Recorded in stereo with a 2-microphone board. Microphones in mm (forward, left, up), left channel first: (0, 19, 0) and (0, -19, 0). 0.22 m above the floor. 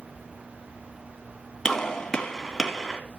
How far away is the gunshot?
About 2.0 m.